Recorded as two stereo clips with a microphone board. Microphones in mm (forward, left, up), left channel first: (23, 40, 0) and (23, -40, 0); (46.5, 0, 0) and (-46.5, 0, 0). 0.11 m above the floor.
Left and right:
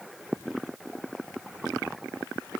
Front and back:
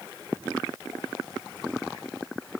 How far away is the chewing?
I don't hear chewing.